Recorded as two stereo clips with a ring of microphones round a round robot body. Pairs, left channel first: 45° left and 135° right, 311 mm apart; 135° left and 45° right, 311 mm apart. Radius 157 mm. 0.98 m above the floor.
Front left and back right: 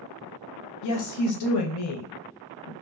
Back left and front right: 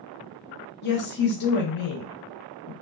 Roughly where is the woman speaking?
Left.